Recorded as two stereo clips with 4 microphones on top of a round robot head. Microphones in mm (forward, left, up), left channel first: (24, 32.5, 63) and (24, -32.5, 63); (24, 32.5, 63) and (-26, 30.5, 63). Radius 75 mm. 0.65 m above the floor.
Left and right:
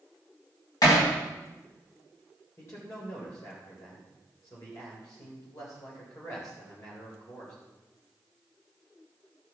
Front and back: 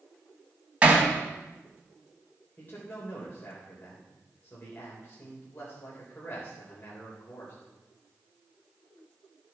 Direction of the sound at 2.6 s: 50° left.